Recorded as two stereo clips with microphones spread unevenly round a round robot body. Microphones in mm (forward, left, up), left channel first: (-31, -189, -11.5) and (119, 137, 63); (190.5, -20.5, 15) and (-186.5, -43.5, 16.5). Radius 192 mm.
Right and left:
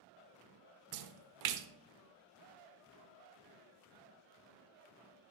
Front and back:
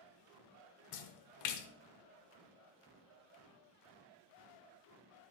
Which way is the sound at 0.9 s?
45° left.